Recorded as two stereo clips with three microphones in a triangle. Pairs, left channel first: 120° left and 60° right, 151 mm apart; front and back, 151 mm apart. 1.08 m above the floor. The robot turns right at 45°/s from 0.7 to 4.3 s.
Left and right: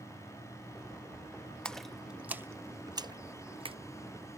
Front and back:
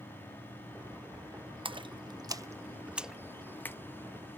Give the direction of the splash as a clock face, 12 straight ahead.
5 o'clock.